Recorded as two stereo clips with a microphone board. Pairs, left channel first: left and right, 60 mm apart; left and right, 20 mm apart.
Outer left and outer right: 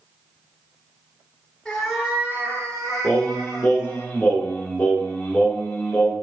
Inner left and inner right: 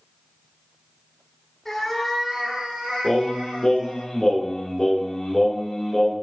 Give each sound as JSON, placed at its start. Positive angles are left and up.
{"t": 1.6, "sound": "a cat meowing", "side_deg": 10, "distance_m": 1.3}
{"t": 3.0, "sound": "singing", "side_deg": 20, "distance_m": 1.2}